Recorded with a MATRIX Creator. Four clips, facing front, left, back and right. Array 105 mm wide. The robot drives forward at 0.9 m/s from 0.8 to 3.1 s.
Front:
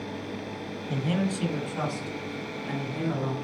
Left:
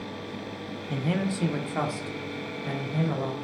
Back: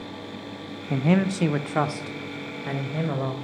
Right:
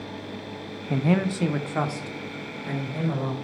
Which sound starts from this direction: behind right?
A man speaking, at 0.9 s.